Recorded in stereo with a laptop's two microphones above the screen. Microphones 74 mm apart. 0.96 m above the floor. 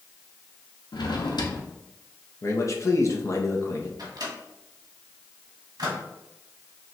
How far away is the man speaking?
About 0.9 m.